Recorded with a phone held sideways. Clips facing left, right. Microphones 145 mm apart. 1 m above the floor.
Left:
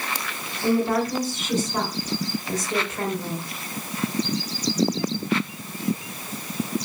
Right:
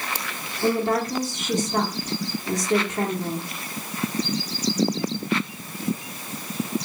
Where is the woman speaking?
70° right (ahead or behind), 2 m.